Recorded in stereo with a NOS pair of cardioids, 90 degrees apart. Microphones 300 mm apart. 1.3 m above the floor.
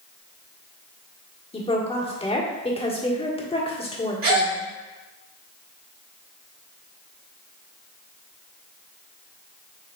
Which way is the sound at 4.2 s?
45° right.